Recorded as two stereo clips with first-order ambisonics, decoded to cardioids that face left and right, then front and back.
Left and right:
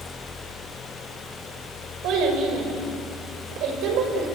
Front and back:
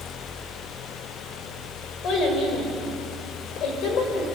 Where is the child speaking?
50° right, 6 m.